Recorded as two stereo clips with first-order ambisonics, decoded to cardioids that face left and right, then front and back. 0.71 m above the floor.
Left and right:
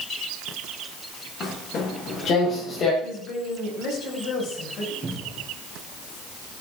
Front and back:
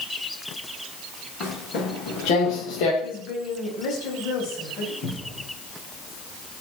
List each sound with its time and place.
1.4 s footsteps: 40° left, 7 m; by 2.9 s 25° left, 6 m
3.0 s a woman speaking: 40° left, 5 m
5.0 s a cupboard door: 20° right, 6 m